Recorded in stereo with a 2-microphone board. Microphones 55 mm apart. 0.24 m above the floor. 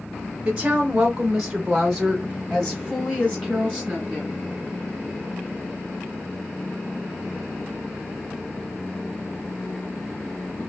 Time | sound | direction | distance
0.5 | a woman speaking | 20° right (ahead or behind) | 1.3 m